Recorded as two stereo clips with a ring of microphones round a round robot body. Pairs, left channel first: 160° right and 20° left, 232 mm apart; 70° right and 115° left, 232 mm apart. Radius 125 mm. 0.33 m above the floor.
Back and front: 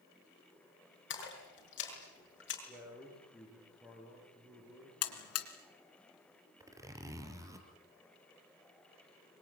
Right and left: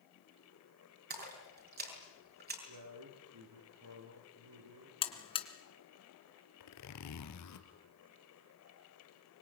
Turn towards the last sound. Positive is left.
turn(degrees=-55)